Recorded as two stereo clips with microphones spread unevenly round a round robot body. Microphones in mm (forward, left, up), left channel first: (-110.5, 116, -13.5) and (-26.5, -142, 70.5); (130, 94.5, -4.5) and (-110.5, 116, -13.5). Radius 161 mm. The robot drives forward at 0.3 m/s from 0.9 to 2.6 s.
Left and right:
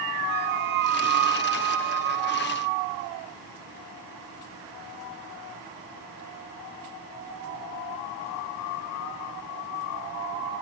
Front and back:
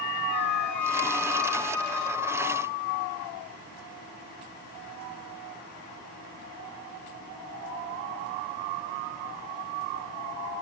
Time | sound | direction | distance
0.3 | a flute | 175° right | 1.4 m